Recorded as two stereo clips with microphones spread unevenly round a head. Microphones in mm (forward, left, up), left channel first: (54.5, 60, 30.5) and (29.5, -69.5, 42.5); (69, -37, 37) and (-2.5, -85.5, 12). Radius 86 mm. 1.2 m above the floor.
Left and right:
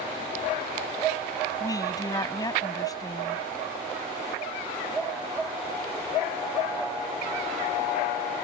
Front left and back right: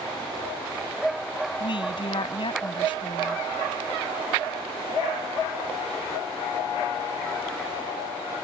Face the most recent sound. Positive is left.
turn(degrees=15)